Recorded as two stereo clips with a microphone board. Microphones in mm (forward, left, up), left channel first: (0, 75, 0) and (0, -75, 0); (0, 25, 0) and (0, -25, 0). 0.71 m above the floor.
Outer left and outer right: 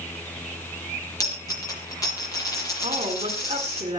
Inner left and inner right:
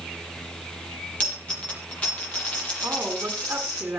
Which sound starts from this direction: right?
A woman speaking, at 2.8 s.